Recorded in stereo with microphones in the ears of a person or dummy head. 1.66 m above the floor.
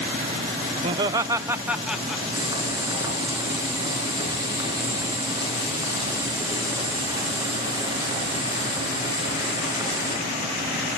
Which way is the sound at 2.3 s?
20° right (ahead or behind).